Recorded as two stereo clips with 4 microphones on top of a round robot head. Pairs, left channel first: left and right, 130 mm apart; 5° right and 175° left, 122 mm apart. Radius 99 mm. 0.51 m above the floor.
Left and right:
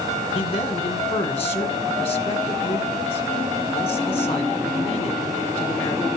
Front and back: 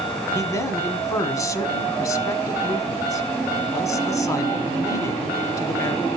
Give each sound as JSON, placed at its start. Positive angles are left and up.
{"t": 0.3, "sound": "a man speaking", "azimuth_deg": 50, "distance_m": 1.8}